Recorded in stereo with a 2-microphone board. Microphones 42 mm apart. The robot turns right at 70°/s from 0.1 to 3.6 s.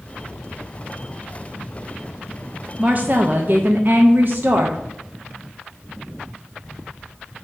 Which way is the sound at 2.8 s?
135° right.